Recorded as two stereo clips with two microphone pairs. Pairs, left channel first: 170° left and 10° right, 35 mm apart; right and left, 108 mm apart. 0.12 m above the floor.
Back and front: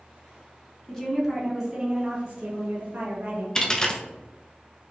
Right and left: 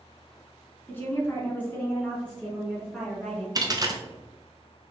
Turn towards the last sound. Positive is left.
turn(degrees=105)